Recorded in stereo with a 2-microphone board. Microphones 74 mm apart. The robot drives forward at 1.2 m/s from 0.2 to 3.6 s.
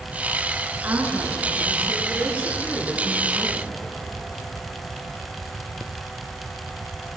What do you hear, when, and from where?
0.8 s a woman speaking: 30° right (ahead or behind), 6 m; by 3.7 s 20° right (ahead or behind), 9 m